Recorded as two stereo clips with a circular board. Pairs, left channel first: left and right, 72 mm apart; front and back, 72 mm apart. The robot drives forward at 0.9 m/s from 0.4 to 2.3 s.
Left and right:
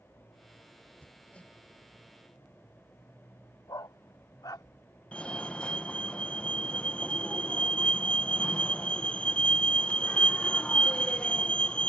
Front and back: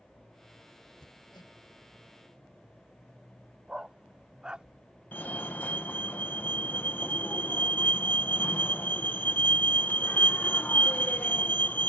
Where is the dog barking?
105° left.